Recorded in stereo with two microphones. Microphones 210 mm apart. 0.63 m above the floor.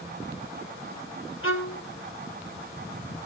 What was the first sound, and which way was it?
A violin, 65° left (ahead or behind).